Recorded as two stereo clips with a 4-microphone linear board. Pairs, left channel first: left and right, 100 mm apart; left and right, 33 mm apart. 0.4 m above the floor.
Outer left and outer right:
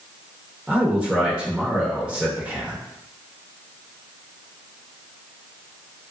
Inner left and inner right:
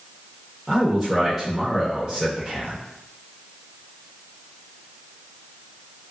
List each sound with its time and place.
0.7 s a man speaking: 15° right (ahead or behind), 0.8 m